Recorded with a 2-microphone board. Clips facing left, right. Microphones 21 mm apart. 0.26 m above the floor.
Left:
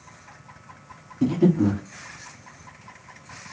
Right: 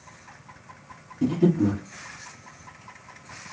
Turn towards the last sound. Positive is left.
turn(degrees=45)  # may be behind; listen again after turning